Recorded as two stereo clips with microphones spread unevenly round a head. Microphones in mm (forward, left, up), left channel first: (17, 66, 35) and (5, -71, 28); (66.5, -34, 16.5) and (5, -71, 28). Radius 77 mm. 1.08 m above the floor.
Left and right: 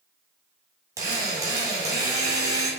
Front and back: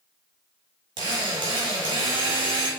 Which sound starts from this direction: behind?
A drill, at 1.0 s.